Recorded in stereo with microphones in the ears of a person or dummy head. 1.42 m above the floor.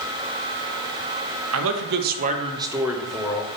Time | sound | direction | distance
1.5 | a man speaking | 75° right (ahead or behind) | 0.7 m